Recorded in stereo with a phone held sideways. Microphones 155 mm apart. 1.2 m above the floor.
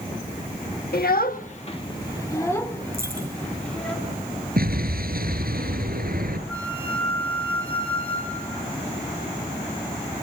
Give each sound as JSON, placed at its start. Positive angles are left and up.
{"t": 0.9, "sound": "a child speaking", "side_deg": 80, "distance_m": 1.1}
{"t": 2.9, "sound": "a dropped coin", "side_deg": -70, "distance_m": 8.0}
{"t": 4.6, "sound": "an explosion", "side_deg": -75, "distance_m": 5.0}
{"t": 6.5, "sound": "a flute", "side_deg": 10, "distance_m": 3.0}